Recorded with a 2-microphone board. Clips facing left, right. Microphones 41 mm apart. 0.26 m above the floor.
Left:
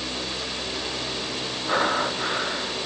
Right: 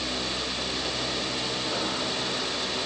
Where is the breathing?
80° left.